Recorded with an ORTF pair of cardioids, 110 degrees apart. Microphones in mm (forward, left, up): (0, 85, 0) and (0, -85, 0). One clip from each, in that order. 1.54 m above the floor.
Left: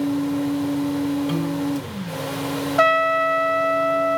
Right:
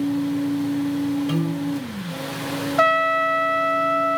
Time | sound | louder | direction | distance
0.0 | a fan | left 1 dB | 45° left | 1.8 m
1.3 | a piano | left 1 dB | straight ahead | 2.5 m
2.8 | a trumpet | left 1 dB | 20° left | 0.6 m